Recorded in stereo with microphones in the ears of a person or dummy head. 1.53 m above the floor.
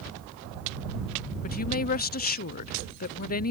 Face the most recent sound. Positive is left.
turn(degrees=50)  # may be behind; listen again after turning